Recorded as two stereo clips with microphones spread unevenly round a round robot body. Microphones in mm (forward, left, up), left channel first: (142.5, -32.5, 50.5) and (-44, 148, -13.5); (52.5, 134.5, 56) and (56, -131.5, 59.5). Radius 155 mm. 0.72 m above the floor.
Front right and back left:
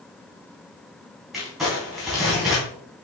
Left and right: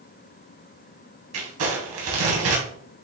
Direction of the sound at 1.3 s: 135° right.